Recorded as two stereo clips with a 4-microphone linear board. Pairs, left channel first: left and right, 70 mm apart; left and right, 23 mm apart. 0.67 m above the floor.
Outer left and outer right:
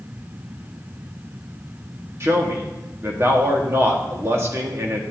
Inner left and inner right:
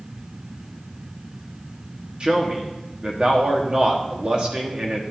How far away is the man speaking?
About 1.4 m.